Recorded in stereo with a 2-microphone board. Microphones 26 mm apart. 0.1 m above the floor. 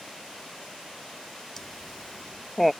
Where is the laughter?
20° left (ahead or behind); by 2.7 s 5° right (ahead or behind).